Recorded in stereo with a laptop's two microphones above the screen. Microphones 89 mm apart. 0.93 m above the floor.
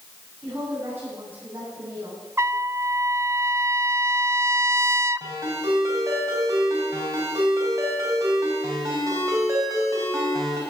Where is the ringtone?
40° right (ahead or behind), 4 m.